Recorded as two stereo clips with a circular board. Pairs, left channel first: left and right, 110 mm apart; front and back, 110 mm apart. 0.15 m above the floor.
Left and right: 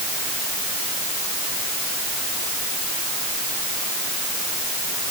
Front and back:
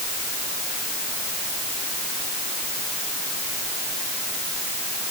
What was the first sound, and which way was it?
Only background noise.